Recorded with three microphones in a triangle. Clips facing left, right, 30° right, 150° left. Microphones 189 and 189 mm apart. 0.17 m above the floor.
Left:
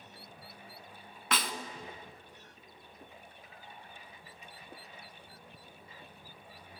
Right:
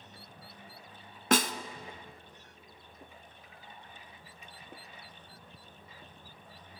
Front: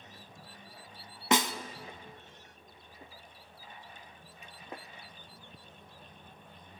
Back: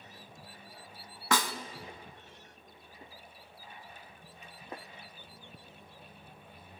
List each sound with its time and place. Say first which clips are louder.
1.3 s a snare drum: right 8 dB, front 3 dB; 90° right, 0.6 m